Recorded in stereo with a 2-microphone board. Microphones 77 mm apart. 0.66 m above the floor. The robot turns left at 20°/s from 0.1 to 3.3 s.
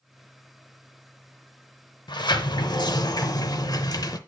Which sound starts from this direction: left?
A sliding door, at 2.1 s.